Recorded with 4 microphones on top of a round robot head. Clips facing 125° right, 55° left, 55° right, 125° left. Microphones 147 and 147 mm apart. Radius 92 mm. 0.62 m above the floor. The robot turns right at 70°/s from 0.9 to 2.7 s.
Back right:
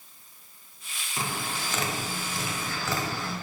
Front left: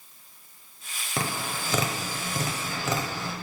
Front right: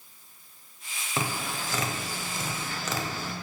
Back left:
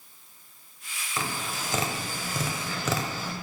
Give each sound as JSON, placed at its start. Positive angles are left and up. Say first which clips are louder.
{"t": 1.2, "sound": "tapping", "louder": "front left 2 dB, front right 1 dB", "azimuth_deg": 15, "distance_m": 0.9}